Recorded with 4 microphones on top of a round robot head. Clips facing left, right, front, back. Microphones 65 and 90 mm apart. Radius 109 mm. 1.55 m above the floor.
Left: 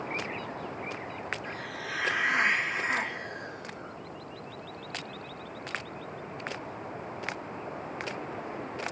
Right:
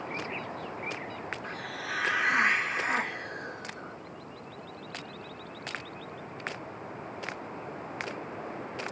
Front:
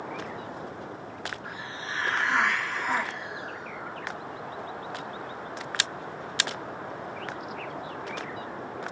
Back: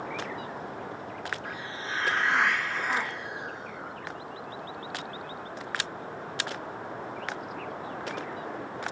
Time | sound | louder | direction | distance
1.4 | a hiss | even, back 1 dB | 60° right | 1.7 m